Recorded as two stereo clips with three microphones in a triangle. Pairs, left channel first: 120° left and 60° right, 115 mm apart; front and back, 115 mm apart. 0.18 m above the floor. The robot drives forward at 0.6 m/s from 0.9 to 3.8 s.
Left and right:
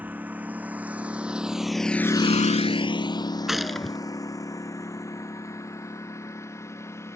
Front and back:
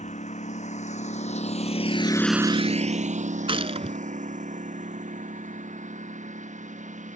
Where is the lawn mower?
15° left; by 7.2 s 170° right.